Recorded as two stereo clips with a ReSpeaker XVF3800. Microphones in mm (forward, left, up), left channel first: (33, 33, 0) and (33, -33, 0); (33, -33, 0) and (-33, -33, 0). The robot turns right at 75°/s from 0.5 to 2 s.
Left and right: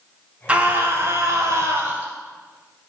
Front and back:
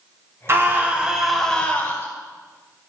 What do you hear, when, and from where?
0.5 s a scream: 150° right, 1.3 m; by 2.1 s 40° right, 1.3 m